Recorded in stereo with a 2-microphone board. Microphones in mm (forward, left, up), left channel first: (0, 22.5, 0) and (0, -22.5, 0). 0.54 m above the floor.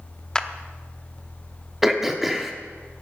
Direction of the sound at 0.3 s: 15° left (ahead or behind).